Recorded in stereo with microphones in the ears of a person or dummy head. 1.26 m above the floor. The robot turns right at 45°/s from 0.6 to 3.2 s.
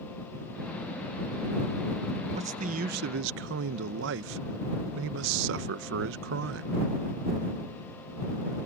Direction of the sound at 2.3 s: 150° right.